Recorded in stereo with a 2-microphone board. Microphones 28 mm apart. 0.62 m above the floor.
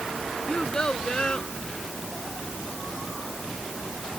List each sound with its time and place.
0.5 s a child speaking: 30° left (ahead or behind); by 1.5 s 35° left (ahead or behind)